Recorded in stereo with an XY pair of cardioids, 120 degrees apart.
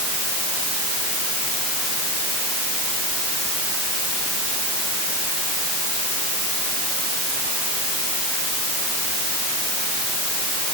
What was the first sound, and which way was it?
Only background noise.